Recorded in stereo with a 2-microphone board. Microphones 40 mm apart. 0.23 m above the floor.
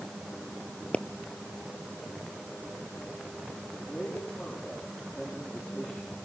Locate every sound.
0.9 s a pop: 35° left (ahead or behind), 0.9 m
3.8 s a man speaking: 25° left (ahead or behind), 8.5 m